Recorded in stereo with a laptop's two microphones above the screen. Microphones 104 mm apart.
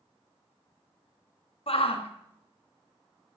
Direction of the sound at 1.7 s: 65° left (ahead or behind).